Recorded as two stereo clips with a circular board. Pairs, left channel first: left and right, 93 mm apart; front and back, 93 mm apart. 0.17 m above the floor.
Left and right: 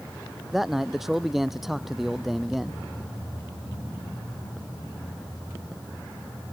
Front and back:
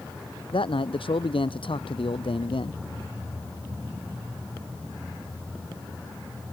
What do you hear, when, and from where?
0.5 s a man speaking: 5° right